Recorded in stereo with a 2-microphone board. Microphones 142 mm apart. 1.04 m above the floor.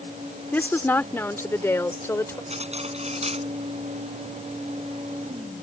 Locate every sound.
0.5 s a woman speaking: 15° left (ahead or behind); by 2.4 s 20° left (ahead or behind)
2.5 s cutlery clinking: 50° right (ahead or behind)